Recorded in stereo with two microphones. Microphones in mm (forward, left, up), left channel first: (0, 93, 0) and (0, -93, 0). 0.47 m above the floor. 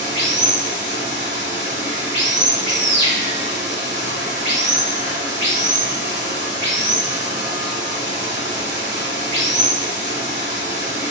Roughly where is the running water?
Right.